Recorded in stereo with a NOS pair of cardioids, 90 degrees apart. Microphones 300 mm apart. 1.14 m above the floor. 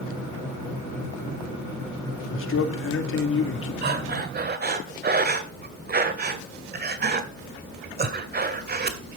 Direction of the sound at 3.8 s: 35° right.